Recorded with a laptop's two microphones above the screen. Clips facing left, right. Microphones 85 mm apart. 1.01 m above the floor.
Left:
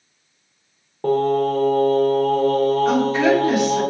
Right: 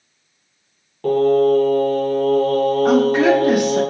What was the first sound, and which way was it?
Singing, 25° left (ahead or behind).